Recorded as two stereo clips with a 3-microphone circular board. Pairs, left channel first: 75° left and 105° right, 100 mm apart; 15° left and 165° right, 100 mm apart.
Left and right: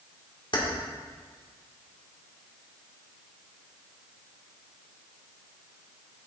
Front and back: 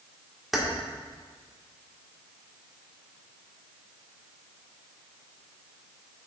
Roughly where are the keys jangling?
Left.